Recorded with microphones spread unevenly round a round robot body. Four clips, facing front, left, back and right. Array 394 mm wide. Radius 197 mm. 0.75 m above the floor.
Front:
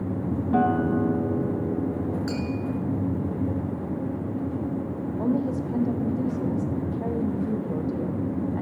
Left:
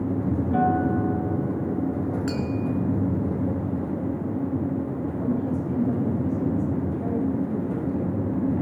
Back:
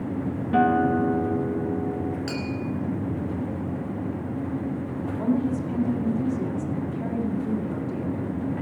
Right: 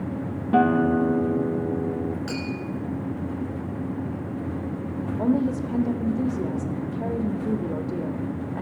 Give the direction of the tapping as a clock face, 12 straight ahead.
8 o'clock.